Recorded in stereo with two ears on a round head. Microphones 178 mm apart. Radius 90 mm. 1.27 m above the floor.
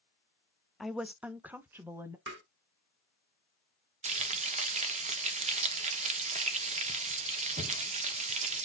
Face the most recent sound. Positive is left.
turn(degrees=-35)  # may be behind; listen again after turning